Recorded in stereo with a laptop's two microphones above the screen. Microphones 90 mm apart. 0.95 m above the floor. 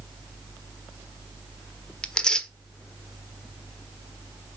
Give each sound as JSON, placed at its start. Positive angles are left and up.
{"t": 2.0, "sound": "tearing paper", "side_deg": 10, "distance_m": 0.8}